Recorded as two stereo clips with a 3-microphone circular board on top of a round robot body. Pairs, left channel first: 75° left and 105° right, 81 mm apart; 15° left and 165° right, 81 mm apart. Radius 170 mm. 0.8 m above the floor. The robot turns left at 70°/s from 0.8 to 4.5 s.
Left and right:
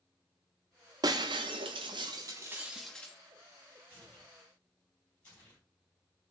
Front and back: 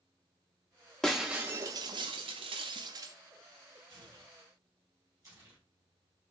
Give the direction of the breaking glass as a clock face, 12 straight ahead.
2 o'clock.